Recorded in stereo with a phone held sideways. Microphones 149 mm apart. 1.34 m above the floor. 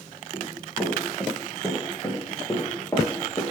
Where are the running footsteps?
5° right (ahead or behind), 2 m; by 3.4 s 20° left (ahead or behind), 1.4 m.